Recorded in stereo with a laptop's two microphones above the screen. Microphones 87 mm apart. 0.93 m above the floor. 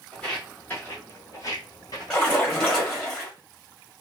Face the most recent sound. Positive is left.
turn(degrees=10)  # may be behind; listen again after turning